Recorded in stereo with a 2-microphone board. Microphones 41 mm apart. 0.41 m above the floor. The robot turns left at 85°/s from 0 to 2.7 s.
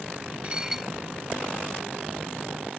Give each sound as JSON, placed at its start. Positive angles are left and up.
{"t": 0.4, "sound": "dishes clattering", "azimuth_deg": -150}